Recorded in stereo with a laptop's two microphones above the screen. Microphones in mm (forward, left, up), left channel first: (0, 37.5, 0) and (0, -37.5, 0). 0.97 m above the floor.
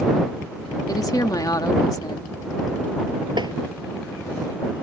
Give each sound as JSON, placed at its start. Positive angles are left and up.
{"t": 0.9, "sound": "a woman speaking", "side_deg": 55}
{"t": 3.4, "sound": "tapping", "side_deg": -80}